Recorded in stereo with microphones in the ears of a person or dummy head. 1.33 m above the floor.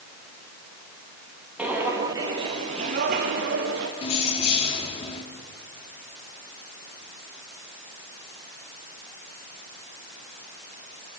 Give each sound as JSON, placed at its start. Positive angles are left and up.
{"t": 1.6, "sound": "footsteps", "side_deg": -5, "distance_m": 2.5}
{"t": 4.0, "sound": "keys jangling", "side_deg": 40, "distance_m": 2.0}